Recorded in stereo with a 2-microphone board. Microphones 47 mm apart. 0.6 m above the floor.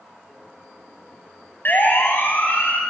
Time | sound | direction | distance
1.6 | a siren | 45° left (ahead or behind) | 5 m